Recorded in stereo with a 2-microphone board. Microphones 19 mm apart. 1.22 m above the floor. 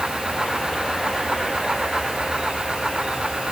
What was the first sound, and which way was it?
Only background noise.